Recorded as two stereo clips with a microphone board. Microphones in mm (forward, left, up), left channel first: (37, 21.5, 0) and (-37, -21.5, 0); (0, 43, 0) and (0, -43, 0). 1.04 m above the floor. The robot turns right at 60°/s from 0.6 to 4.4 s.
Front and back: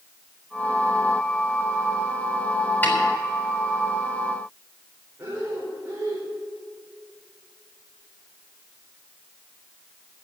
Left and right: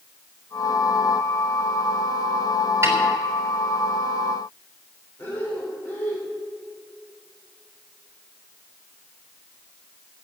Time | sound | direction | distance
2.8 | a snare drum | 35° right | 4.5 m
5.2 | breathing | 150° left | 4 m